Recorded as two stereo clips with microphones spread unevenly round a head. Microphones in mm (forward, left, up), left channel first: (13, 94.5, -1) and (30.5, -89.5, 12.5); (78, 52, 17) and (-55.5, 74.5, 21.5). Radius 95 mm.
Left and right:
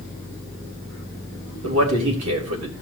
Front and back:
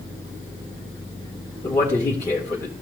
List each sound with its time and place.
1.6 s a man speaking: 85° right, 2.5 m